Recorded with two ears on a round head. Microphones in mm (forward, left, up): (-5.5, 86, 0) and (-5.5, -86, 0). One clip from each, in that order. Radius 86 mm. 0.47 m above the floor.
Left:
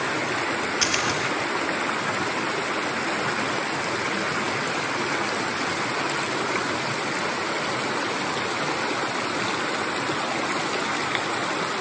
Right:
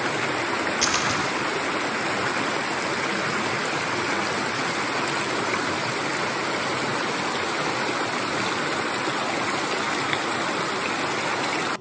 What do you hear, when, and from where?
0.8 s a splash: 20° left (ahead or behind), 5 m